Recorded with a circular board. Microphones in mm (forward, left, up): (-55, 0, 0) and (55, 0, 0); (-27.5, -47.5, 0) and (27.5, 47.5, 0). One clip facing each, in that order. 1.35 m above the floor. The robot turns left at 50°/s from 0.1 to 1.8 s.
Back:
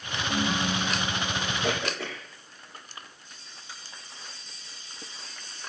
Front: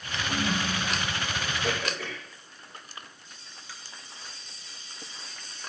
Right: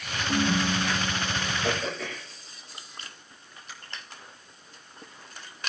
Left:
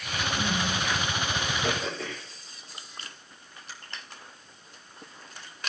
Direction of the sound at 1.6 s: 125° left.